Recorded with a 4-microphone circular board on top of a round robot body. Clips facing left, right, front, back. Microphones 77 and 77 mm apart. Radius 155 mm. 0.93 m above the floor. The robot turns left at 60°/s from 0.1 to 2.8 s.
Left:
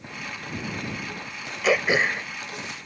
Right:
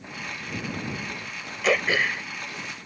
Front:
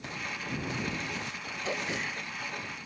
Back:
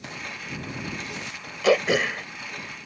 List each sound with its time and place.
1.6 s throat clearing: straight behind; by 2.3 s 140° left